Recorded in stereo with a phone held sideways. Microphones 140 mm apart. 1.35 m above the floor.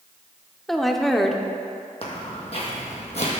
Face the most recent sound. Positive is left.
turn(degrees=50)  # may be behind; listen again after turning